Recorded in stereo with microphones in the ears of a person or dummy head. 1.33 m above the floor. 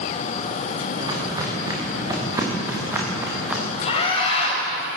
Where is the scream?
35° left (ahead or behind), 8 m.